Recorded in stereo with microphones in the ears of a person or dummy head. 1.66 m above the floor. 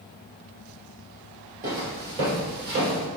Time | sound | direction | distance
1.6 | footsteps | 20° right (ahead or behind) | 2 m